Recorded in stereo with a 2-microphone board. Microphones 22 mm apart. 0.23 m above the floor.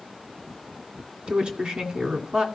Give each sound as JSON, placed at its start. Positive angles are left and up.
{"t": 1.3, "sound": "a woman speaking", "side_deg": -55, "distance_m": 1.8}